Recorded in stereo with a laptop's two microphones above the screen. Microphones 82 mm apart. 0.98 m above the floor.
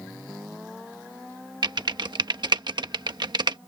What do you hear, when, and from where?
1.6 s typing on a keyboard: 65° right (ahead or behind)